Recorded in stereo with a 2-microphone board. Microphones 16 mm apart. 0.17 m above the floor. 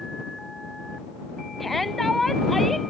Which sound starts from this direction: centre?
A shout, at 1.6 s.